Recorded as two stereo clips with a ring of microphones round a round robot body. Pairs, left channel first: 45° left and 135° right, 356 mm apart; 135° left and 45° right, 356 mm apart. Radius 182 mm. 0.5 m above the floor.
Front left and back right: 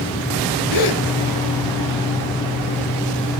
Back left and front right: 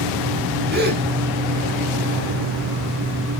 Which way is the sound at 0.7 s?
20° left.